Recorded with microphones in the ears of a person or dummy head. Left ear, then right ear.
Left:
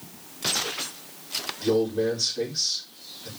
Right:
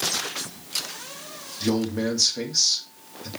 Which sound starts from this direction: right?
A man speaking, at 1.6 s.